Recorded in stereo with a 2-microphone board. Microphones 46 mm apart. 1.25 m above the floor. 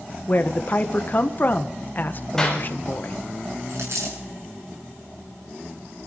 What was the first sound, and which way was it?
A woman speaking, 45° left (ahead or behind).